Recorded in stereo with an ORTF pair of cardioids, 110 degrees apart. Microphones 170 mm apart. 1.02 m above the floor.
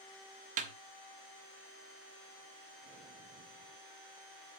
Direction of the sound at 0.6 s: 50° right.